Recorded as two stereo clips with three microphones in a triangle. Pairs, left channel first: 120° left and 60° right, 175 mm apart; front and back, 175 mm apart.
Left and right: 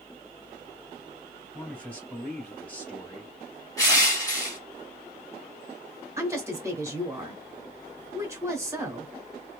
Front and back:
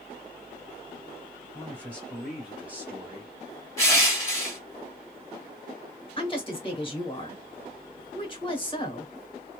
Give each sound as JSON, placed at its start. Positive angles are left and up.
{"t": 1.5, "sound": "a man speaking", "azimuth_deg": 50, "distance_m": 1.4}
{"t": 3.8, "sound": "crushing", "azimuth_deg": 65, "distance_m": 1.2}
{"t": 6.2, "sound": "a woman speaking", "azimuth_deg": 0, "distance_m": 1.2}